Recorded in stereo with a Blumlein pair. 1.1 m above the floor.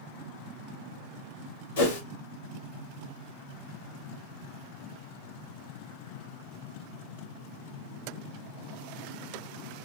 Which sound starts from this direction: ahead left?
A whoosh, at 1.8 s.